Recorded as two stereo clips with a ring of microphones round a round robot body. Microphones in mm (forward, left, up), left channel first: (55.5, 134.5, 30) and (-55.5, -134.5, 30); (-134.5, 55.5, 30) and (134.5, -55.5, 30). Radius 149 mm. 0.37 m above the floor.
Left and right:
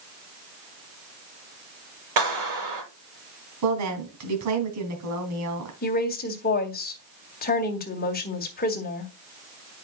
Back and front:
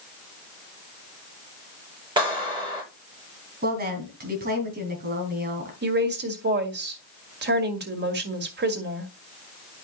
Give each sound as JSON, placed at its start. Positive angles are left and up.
{"t": 2.2, "sound": "a clap", "azimuth_deg": -95, "distance_m": 8.5}
{"t": 3.6, "sound": "a woman speaking", "azimuth_deg": -80, "distance_m": 2.5}
{"t": 5.8, "sound": "a woman speaking", "azimuth_deg": 20, "distance_m": 1.9}